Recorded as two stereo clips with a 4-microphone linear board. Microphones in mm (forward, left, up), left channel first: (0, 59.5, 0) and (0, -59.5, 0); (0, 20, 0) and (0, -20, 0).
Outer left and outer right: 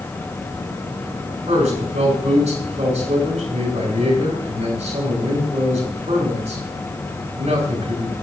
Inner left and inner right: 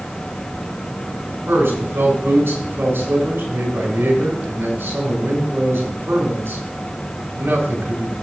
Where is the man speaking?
70° right (ahead or behind), 4 m.